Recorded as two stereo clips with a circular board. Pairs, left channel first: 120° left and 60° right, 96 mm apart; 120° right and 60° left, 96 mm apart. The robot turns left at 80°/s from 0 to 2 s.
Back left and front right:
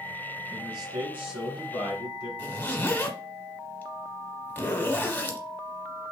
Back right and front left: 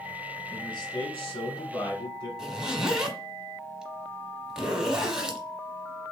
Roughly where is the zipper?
Behind left.